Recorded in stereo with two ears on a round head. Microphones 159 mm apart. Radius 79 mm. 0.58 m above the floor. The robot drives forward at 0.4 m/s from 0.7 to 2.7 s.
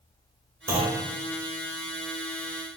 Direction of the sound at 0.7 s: 15° right (ahead or behind).